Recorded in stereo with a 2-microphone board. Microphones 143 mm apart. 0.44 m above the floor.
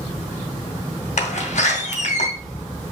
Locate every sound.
1.2 s a door slam: 65° left (ahead or behind), 1.9 m